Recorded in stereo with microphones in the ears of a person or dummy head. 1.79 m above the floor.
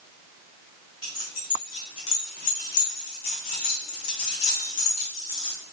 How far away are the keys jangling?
About 1.9 m.